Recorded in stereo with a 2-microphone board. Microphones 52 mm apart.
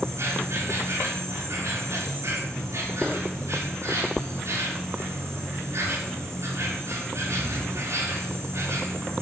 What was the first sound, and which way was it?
An insect, 65° right (ahead or behind).